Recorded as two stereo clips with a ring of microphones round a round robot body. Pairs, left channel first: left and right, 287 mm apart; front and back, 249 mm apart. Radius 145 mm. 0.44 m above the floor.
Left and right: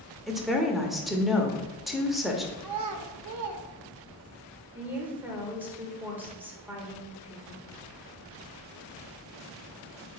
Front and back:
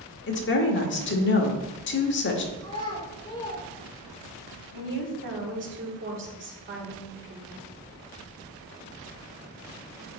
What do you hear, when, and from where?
0.3 s a woman speaking: straight ahead, 1.1 m
2.6 s a child speaking: 75° right, 0.8 m
4.7 s a woman speaking: 170° right, 1.5 m